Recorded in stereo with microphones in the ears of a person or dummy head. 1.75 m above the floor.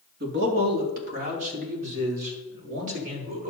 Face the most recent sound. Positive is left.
turn(degrees=-45)  # may be behind; listen again after turning